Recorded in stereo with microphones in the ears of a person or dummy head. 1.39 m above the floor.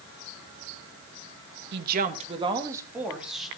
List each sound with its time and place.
1.7 s a woman speaking: 60° right (ahead or behind), 1.6 m; by 3.5 s centre (ahead or behind), 3 m